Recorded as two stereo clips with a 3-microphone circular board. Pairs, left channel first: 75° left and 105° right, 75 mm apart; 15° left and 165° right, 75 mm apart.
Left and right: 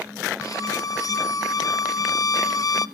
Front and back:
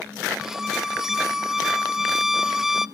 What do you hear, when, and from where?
0.4 s a violin: 110° left, 0.7 m